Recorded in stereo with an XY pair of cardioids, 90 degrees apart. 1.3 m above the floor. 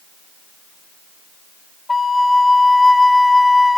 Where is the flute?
20° left, 0.7 m.